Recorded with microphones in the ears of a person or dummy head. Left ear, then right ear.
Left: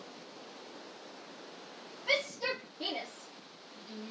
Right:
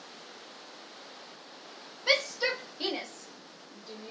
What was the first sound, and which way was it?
A shout, 60° right (ahead or behind).